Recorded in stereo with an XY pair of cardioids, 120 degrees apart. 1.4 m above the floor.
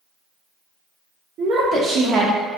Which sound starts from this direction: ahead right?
A woman speaking, at 1.4 s.